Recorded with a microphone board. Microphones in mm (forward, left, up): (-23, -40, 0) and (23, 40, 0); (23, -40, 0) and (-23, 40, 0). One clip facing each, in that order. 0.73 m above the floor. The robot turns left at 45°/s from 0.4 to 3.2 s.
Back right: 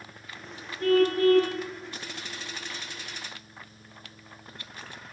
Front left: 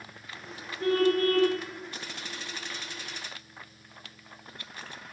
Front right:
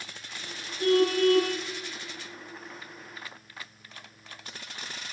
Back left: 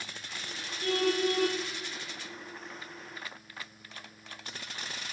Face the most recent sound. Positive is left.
turn(degrees=-130)